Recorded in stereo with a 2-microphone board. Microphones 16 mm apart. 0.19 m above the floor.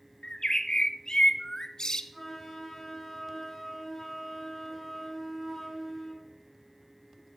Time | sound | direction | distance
0.2 | a bird | 45° left (ahead or behind) | 1.0 m
2.1 | a flute | centre (ahead or behind) | 9 m